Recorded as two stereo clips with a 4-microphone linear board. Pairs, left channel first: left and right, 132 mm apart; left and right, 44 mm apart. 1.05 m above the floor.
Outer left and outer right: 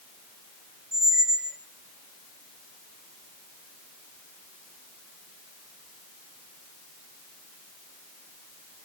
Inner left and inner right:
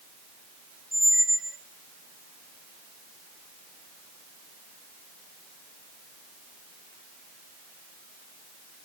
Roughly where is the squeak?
Centre.